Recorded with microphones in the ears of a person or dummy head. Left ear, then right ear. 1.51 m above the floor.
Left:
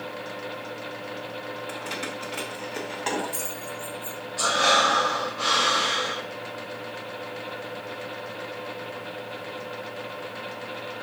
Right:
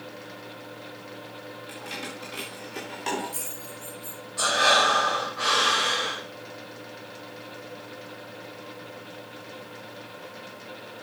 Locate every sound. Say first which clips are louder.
1.7 s keys jangling: left 2 dB; 25° left (ahead or behind), 2 m; by 4.2 s 10° left (ahead or behind), 3.5 m
4.4 s breathing: even; 30° right (ahead or behind), 4.5 m